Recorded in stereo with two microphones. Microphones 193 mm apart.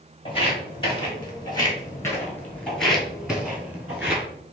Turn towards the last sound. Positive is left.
turn(degrees=-15)  # may be behind; listen again after turning